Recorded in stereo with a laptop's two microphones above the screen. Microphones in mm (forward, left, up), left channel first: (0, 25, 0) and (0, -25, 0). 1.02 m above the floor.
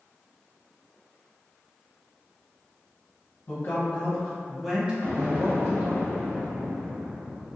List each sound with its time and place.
3.5 s a man speaking: 45° left (ahead or behind), 0.9 m; by 6.0 s 55° right (ahead or behind), 1.0 m
5.0 s an explosion: 55° right (ahead or behind), 1.5 m